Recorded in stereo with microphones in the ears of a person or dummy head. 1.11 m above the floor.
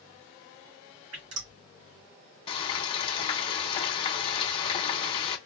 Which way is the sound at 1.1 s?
85° right.